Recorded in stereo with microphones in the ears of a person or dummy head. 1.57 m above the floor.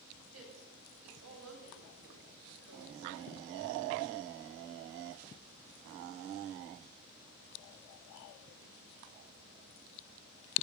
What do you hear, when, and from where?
0.3 s a woman speaking: 85° right, 9.5 m